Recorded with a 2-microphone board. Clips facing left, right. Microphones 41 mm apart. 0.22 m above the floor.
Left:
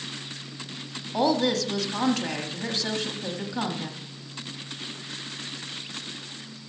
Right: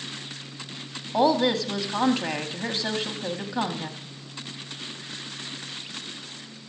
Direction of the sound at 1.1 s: 20° right (ahead or behind).